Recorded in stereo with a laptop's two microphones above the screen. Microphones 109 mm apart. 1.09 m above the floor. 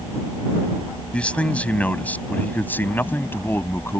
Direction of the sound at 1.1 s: 10° left (ahead or behind).